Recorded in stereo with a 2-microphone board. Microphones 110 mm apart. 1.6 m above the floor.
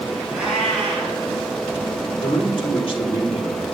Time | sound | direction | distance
0.3 | a cat meowing | 5° right (ahead or behind) | 5 m
2.2 | a man speaking | 50° left (ahead or behind) | 3 m